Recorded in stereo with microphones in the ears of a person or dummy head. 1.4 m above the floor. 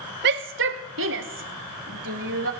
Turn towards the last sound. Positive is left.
turn(degrees=-60)  # may be behind; listen again after turning